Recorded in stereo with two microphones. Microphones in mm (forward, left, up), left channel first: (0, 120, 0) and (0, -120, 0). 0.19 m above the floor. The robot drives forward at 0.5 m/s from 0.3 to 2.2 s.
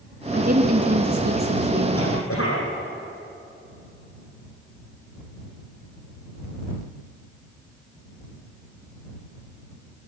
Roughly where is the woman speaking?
Right.